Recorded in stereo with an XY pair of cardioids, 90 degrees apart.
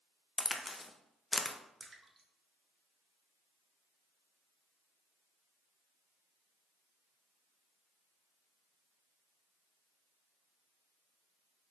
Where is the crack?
20° left, 0.5 m.